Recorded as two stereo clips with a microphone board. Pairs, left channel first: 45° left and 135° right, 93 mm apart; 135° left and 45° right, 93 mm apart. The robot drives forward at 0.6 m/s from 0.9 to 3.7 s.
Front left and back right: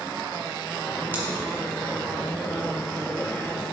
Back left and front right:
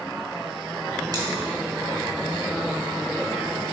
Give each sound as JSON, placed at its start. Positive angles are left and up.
{"t": 1.1, "sound": "scissors", "azimuth_deg": -75, "distance_m": 2.5}